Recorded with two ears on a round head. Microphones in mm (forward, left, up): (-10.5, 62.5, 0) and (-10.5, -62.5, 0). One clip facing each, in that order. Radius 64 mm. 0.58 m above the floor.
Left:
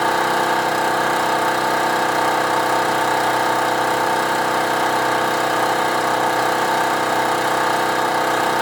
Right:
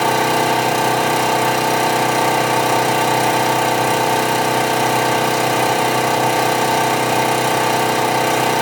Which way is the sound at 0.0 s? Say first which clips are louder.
Right 2 dB; 20° right (ahead or behind).